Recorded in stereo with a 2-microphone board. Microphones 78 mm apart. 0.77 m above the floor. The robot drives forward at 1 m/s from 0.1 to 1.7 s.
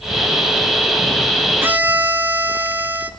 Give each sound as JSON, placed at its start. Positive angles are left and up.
{"t": 1.6, "sound": "a violin", "side_deg": -25, "distance_m": 1.5}